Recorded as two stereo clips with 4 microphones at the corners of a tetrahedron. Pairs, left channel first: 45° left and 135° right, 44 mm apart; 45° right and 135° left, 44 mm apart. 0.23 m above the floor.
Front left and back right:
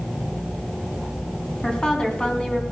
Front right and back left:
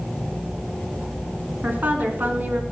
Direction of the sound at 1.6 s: 110° left.